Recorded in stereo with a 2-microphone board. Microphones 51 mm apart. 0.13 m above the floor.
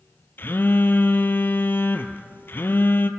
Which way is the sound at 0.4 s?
45° left (ahead or behind).